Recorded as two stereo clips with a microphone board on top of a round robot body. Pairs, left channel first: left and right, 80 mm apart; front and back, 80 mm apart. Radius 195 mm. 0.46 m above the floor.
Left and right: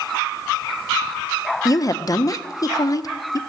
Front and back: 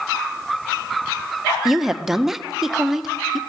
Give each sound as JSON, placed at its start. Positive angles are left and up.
{"t": 1.6, "sound": "a woman speaking", "azimuth_deg": 95, "distance_m": 1.5}